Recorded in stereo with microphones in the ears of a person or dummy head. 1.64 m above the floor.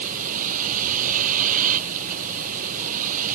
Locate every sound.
0.0 s a vehicle: 50° right (ahead or behind)